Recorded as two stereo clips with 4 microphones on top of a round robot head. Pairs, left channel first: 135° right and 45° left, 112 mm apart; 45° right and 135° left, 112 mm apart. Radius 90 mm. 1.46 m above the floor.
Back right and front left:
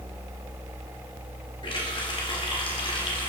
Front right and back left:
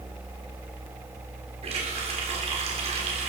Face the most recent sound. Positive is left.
turn(degrees=175)